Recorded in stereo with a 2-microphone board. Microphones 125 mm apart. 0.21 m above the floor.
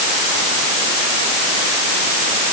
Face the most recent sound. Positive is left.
No sound to turn to.